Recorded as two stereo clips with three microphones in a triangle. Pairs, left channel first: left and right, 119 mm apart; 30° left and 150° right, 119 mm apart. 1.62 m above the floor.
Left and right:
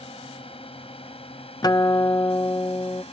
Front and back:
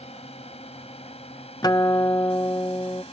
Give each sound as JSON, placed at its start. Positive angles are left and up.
{"t": 0.0, "sound": "a drone", "azimuth_deg": 55}
{"t": 1.6, "sound": "a guitar", "azimuth_deg": 60}